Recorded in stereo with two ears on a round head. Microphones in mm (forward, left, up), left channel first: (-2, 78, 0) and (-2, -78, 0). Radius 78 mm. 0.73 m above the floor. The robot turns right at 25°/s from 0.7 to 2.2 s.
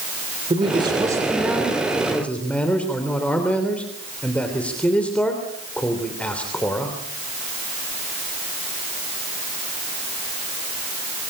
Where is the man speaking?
30° right, 3 m; by 7.0 s 10° left, 3 m.